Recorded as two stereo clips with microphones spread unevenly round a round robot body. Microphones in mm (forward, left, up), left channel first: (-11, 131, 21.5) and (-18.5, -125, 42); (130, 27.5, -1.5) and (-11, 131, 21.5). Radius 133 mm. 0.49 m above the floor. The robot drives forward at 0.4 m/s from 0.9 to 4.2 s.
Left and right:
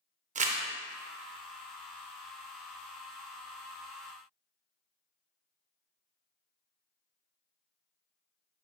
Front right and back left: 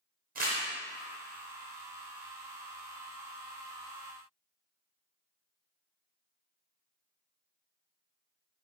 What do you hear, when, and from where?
0.3 s crumpling: 155° right, 0.6 m